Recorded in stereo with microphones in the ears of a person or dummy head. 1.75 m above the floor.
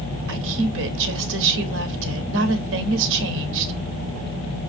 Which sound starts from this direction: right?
A woman speaking, at 0.3 s.